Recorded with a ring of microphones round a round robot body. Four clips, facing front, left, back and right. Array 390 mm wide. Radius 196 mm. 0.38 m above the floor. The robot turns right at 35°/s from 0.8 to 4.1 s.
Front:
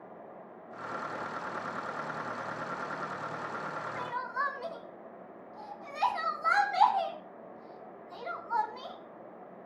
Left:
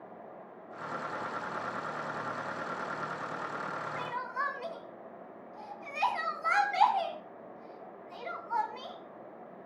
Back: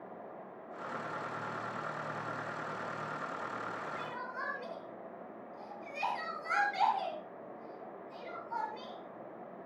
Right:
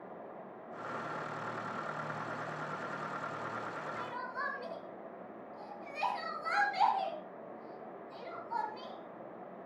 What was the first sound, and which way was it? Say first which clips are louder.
Crying: left 4 dB, front 6 dB; 30° left.